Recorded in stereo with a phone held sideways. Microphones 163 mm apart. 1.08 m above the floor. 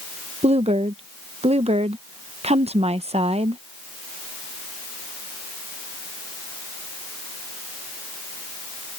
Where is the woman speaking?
40° right (ahead or behind).